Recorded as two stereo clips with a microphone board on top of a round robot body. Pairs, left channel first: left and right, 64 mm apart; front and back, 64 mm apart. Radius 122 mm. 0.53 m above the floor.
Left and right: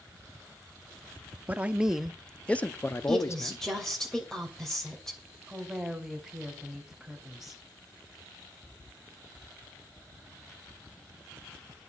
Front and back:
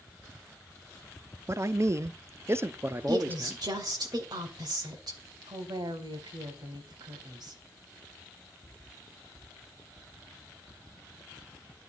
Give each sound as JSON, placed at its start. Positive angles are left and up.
{"t": 1.5, "sound": "a man speaking", "azimuth_deg": -150, "distance_m": 0.9}
{"t": 3.1, "sound": "a woman speaking", "azimuth_deg": 175, "distance_m": 2.5}
{"t": 5.5, "sound": "a woman speaking", "azimuth_deg": -175, "distance_m": 3.0}